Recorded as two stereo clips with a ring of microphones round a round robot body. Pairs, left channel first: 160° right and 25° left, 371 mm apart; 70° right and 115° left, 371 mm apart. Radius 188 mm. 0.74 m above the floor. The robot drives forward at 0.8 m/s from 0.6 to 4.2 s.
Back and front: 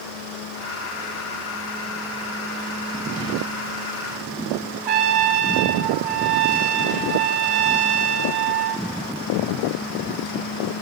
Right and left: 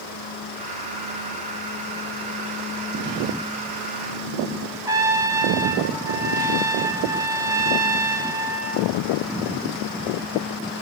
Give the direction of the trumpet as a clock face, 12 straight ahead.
11 o'clock.